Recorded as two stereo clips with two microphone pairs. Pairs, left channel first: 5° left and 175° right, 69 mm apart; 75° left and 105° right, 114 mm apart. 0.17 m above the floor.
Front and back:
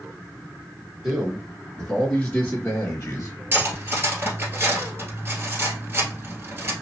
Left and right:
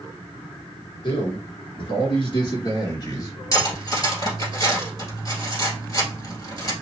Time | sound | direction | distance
1.0 | a man speaking | 105° left | 2.0 m
3.5 | cutlery clinking | 130° left | 1.7 m